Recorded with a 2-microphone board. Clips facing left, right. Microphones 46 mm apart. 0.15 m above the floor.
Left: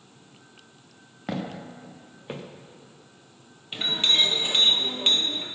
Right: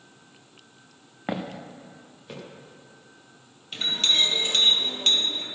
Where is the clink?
15° left (ahead or behind), 2.0 m.